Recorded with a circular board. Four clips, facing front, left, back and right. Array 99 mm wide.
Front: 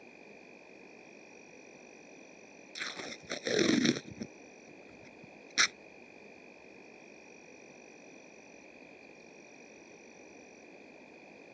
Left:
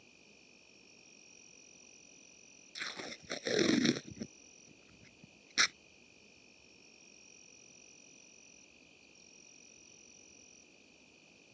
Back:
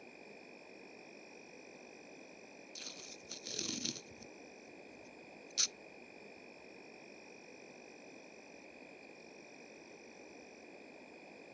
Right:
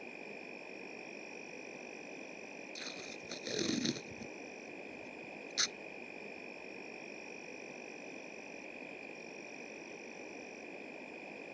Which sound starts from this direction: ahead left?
Tape being pulled, at 2.8 s.